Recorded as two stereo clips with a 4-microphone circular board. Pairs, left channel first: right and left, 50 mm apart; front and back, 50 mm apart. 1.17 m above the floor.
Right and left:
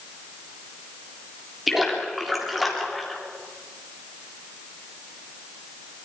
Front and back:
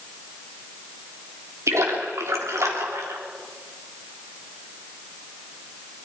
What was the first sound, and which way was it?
A splash, 175° left.